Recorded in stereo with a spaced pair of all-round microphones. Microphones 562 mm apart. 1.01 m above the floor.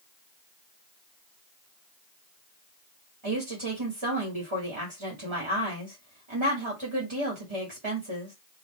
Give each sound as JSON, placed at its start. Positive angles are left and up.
{"t": 3.2, "sound": "a woman speaking", "side_deg": -55, "distance_m": 2.0}